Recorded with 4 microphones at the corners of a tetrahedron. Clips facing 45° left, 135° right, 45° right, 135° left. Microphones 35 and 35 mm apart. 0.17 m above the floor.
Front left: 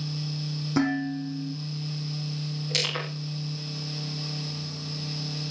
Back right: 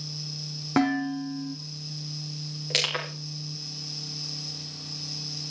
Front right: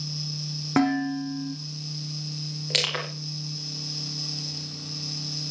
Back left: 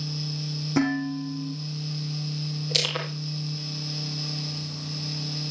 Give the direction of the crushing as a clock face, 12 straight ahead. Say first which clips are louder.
Back right 2 dB, front right 1 dB; 3 o'clock.